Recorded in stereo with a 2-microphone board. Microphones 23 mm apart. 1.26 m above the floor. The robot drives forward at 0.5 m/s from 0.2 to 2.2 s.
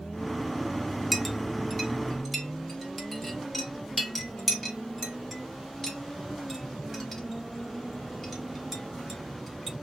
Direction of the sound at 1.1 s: Centre (ahead or behind).